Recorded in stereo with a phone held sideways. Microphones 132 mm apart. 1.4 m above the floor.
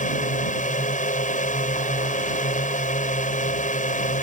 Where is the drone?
75° left (ahead or behind).